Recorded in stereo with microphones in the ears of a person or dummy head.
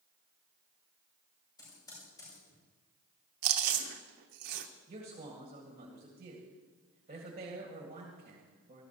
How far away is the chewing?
About 1.0 m.